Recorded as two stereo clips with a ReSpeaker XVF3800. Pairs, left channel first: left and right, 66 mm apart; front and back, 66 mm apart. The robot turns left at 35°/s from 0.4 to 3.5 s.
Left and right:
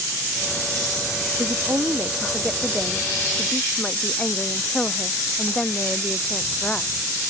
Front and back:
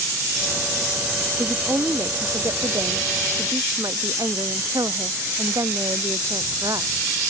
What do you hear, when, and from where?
1.4 s a woman speaking: 125° right; by 6.9 s 165° left